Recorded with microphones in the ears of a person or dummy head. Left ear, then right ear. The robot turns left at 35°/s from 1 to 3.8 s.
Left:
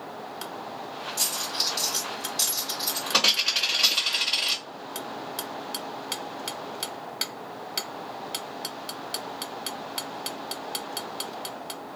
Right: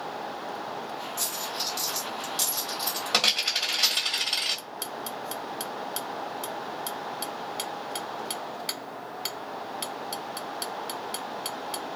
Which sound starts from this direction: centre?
A dropped coin, at 1.2 s.